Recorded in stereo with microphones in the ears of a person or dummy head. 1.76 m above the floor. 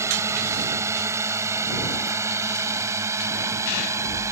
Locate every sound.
0.0 s a drone: 10° right (ahead or behind); by 4.3 s 15° right (ahead or behind)